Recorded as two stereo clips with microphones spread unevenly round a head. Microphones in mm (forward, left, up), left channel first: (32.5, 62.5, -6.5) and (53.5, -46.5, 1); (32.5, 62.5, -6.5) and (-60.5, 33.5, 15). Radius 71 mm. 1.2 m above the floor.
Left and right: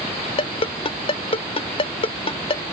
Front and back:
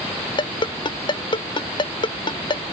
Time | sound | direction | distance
0.4 | a ringtone | 60° left | ?